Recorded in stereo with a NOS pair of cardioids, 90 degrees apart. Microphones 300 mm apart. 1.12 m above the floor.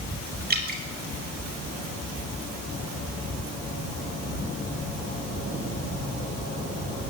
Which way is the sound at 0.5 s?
30° right.